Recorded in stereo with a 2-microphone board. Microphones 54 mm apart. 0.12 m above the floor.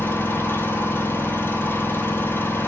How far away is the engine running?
About 1.4 m.